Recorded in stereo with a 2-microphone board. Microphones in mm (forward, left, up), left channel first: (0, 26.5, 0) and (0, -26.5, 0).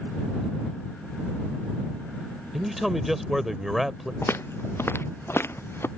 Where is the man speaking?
5° right (ahead or behind).